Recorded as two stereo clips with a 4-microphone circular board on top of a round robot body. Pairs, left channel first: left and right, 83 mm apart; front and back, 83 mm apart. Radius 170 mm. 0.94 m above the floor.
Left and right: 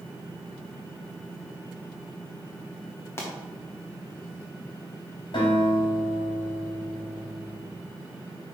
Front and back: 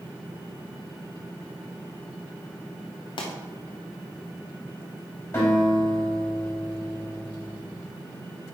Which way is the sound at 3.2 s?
30° left.